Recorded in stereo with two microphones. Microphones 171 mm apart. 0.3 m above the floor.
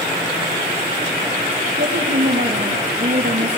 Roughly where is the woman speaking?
Right.